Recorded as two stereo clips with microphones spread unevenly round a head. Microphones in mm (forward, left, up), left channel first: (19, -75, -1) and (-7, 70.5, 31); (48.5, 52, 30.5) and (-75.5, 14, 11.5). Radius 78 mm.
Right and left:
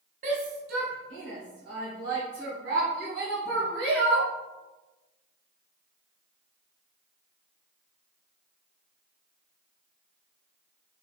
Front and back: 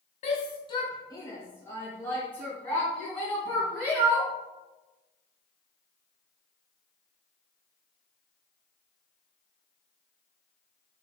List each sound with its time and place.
0.2 s a shout: 55° left, 0.9 m; by 4.3 s 105° left, 3.5 m